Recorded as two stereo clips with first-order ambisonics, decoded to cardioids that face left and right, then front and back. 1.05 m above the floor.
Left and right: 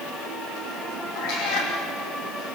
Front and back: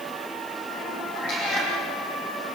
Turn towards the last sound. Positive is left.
turn(degrees=55)